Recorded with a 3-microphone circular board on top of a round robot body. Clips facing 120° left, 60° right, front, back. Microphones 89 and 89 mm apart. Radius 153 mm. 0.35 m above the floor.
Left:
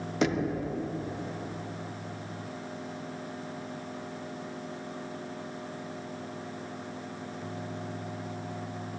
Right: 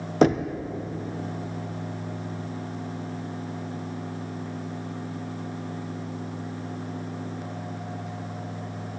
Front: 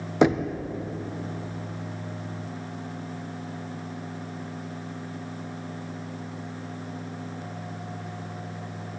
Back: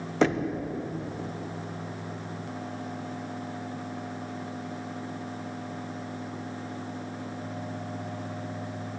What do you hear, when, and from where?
0.2 s knocking: 70° right, 0.7 m